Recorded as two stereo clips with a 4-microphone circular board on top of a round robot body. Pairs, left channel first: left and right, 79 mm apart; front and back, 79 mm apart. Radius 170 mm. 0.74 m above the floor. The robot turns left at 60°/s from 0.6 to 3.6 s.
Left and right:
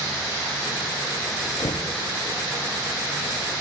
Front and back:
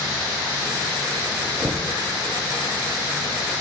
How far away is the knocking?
About 1.1 m.